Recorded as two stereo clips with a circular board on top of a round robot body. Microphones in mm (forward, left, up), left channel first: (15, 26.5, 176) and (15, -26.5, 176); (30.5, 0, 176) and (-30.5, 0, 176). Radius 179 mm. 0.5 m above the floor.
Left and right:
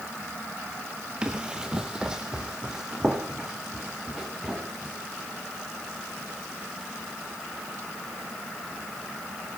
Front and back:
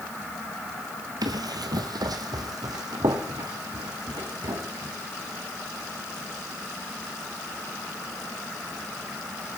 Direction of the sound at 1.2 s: 165° right.